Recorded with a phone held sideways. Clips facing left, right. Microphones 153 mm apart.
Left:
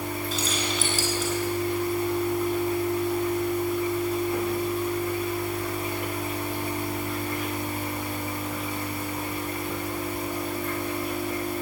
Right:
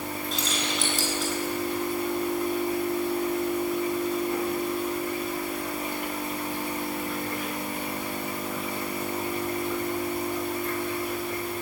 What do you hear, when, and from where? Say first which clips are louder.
0.3 s keys jangling: even; centre (ahead or behind), 7.5 m